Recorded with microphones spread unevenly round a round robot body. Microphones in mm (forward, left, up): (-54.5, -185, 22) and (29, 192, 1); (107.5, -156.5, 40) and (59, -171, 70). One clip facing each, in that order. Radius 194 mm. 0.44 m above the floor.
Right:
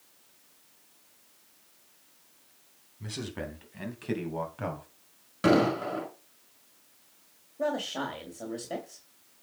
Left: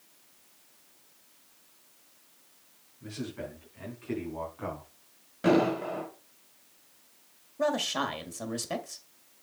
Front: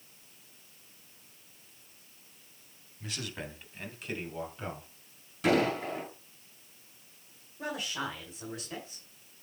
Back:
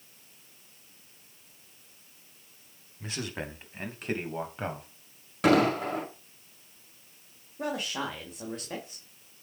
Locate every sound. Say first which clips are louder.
3.0 s a man speaking: even, back 4 dB; 100° right, 3.5 m; by 4.9 s 135° right, 3 m
5.4 s an explosion: right 1 dB, back 4 dB; 145° right, 5.5 m
7.6 s a man speaking: left 1 dB, back 3 dB; 125° left, 2 m